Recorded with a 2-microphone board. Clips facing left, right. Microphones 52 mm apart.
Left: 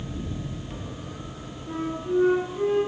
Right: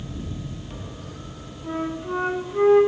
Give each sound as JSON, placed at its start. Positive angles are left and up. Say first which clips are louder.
{"t": 1.6, "sound": "a flute", "louder": "right 2 dB", "side_deg": -55, "distance_m": 3.0}